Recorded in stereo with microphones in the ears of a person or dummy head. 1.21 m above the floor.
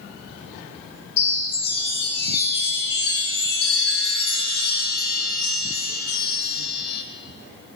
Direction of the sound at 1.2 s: 60° left (ahead or behind).